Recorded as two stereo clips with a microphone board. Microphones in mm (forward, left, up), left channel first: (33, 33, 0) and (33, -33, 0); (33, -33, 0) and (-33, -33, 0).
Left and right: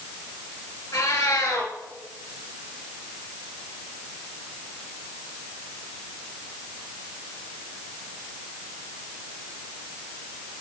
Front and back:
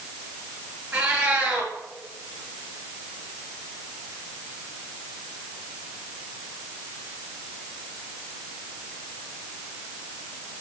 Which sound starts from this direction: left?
A cat meowing, at 0.9 s.